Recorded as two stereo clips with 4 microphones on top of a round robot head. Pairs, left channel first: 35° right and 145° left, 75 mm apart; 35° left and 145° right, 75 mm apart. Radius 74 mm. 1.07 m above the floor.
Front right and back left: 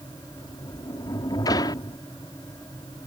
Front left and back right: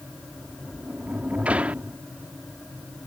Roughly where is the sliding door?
Right.